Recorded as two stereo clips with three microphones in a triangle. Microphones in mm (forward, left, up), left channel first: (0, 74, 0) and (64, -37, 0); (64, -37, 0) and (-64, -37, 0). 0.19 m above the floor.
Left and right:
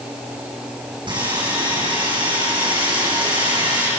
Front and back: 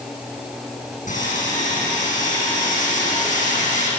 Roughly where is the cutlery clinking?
I don't hear cutlery clinking.